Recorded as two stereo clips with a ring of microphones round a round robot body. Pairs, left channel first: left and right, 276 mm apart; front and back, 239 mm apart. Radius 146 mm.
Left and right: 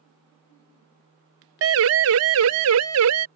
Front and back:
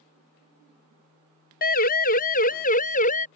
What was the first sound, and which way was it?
A siren, 55° right.